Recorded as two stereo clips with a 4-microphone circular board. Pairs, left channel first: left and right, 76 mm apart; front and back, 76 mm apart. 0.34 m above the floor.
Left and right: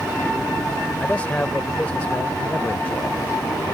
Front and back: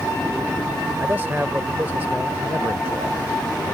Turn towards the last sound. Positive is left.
turn(degrees=140)